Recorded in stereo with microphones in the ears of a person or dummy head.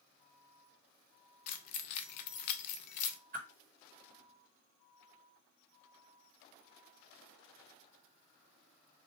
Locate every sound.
1.5 s keys jangling: 50° left (ahead or behind), 0.5 m
3.3 s a whoosh: 45° right (ahead or behind), 1.5 m